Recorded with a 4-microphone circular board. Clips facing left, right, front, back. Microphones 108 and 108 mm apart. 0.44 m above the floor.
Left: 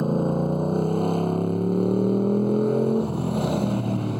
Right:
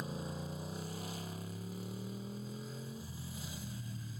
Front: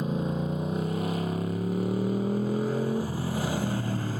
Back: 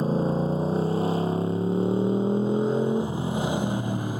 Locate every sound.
0.0 s a motorcycle: 125° left; by 4.2 s 110° left